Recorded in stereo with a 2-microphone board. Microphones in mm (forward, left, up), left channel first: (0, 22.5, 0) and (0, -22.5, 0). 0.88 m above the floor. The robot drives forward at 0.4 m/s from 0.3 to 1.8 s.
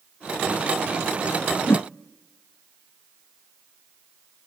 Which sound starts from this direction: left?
A whoosh, at 1.7 s.